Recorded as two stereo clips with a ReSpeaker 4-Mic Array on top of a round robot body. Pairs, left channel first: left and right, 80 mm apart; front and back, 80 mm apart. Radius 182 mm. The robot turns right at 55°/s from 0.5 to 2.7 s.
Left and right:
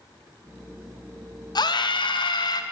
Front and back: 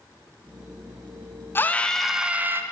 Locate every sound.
1.6 s a scream: 60° left, 0.8 m; by 2.6 s 120° left, 0.8 m